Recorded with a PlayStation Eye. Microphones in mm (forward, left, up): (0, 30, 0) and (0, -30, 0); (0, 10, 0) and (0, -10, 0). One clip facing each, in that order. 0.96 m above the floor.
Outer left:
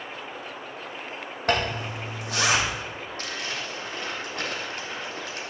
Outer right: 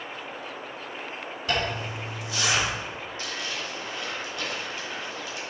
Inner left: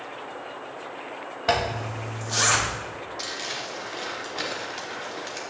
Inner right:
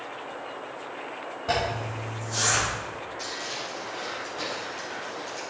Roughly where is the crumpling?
Left.